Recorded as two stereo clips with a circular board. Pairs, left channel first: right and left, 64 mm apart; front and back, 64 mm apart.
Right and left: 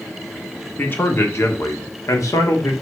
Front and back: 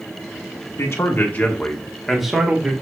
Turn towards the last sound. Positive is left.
turn(degrees=-110)